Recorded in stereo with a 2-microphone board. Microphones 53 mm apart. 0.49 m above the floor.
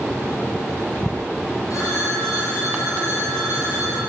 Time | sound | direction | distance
1.7 | a phone ringing | 85° left | 7 m